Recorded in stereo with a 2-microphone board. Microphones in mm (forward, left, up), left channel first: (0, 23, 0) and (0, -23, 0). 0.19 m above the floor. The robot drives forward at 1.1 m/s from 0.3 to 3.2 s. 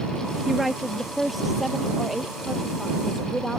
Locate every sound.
0.5 s a woman speaking: centre (ahead or behind)